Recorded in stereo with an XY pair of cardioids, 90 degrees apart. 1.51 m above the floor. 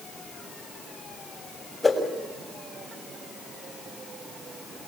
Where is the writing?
I don't hear writing.